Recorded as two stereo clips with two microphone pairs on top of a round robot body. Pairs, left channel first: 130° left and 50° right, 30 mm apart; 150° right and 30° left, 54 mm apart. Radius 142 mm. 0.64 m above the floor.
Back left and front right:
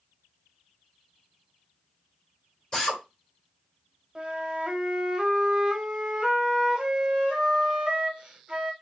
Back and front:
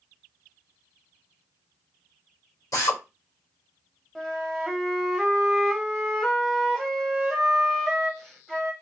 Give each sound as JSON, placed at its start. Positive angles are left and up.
{"t": 2.7, "sound": "a drill", "azimuth_deg": -165, "distance_m": 2.0}
{"t": 4.2, "sound": "a flute", "azimuth_deg": -80, "distance_m": 1.2}